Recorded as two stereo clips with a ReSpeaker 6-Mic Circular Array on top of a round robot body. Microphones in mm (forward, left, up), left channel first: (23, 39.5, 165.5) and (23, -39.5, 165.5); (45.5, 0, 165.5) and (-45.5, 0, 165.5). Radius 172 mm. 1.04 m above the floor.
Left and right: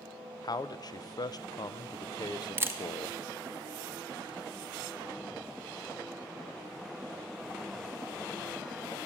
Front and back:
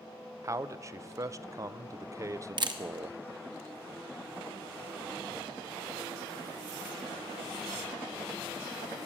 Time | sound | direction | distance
0.4 | a man speaking | 125° left | 0.6 m
2.6 | a camera shutter | 145° right | 1.1 m